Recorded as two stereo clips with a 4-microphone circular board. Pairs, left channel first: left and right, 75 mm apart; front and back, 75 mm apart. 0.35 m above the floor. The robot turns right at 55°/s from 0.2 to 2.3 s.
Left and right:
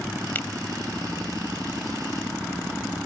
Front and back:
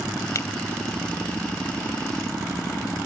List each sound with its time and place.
0.3 s a finger snap: 30° left; by 0.5 s 40° left